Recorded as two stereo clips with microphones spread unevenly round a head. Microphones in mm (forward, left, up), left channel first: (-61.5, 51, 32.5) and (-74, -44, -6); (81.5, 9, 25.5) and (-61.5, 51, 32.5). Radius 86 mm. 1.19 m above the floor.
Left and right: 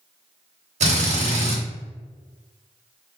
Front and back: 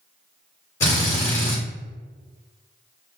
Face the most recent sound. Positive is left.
turn(degrees=-90)